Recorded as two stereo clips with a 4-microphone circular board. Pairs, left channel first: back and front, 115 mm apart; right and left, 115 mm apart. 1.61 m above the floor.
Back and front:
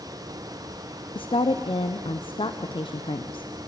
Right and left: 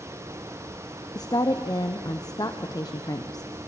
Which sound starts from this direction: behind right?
A woman speaking, at 1.1 s.